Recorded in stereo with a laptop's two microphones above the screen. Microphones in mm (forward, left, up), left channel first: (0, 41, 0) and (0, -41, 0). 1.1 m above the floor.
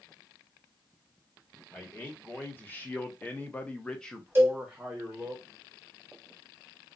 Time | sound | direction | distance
1.7 | a man speaking | 25° left (ahead or behind) | 1.4 m
4.3 | a cowbell | 25° right (ahead or behind) | 0.8 m